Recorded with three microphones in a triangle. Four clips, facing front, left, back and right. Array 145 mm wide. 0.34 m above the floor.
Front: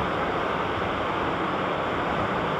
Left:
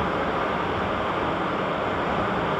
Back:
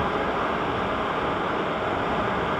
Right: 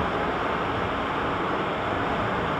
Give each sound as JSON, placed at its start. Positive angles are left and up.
{"t": 0.0, "sound": "running water", "azimuth_deg": 90, "distance_m": 4.5}